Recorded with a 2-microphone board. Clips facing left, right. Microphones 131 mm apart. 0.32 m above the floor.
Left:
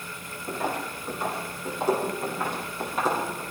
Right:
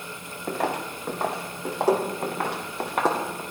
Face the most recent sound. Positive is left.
turn(degrees=-75)  # may be behind; listen again after turning